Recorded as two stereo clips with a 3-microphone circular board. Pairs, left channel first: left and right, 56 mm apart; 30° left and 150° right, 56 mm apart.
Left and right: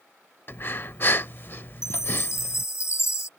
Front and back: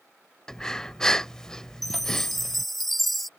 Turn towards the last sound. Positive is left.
turn(degrees=115)